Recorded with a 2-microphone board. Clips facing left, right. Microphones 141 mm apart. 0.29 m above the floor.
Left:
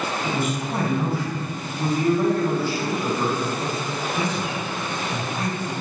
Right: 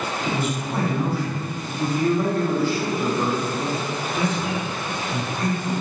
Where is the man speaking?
5° left (ahead or behind), 1.0 m.